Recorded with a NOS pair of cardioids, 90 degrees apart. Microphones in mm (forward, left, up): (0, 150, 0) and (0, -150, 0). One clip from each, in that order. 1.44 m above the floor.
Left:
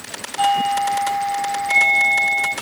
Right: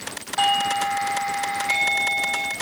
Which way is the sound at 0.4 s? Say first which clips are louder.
Left 3 dB; 50° right.